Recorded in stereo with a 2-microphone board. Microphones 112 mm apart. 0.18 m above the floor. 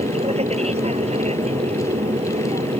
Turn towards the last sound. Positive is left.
turn(degrees=-65)  # may be behind; listen again after turning